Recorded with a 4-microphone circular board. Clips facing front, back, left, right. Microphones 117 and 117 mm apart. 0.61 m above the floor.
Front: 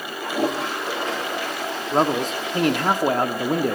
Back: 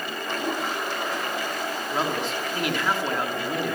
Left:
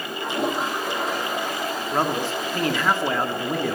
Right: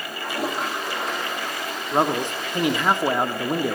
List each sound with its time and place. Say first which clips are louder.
0.2 s a toilet flushing: front 6 dB, left 2 dB; 5° left, 8.5 m
1.9 s a man speaking: front 8 dB, right 3 dB; 25° right, 1.6 m